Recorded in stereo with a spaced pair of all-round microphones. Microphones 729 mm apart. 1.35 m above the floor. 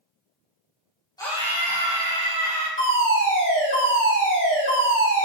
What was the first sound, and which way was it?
A scream, 5° left (ahead or behind).